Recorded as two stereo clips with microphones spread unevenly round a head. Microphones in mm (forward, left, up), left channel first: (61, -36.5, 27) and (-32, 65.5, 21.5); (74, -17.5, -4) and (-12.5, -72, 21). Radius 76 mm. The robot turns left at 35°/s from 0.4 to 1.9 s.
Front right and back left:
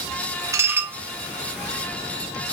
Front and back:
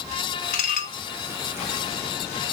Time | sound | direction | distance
0.5 | dishes clattering | 65° left | 1.6 m